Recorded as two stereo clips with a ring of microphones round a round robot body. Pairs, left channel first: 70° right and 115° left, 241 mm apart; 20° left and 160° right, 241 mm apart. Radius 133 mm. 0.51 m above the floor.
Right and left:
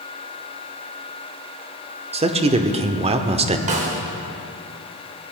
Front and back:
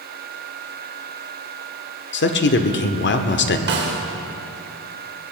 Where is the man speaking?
50° left, 1.2 m.